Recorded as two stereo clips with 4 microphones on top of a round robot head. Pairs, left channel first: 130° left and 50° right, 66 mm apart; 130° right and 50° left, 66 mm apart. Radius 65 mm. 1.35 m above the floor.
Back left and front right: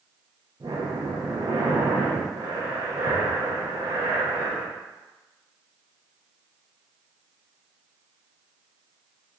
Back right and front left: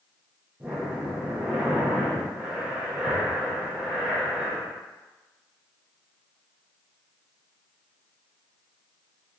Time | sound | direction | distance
0.6 | breathing | 20° right | 0.5 m